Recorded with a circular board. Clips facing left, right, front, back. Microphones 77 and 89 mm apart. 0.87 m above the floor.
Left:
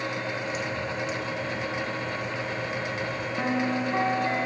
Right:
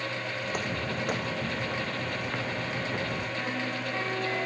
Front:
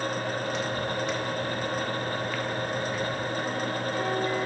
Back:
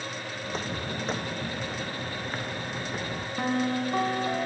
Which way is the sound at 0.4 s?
130° right.